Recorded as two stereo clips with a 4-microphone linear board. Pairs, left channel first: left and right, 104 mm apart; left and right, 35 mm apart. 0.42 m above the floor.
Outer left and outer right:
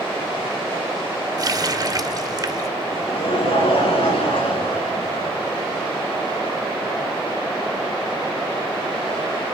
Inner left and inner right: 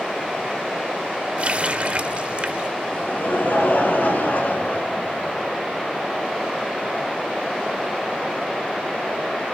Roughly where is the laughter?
Left.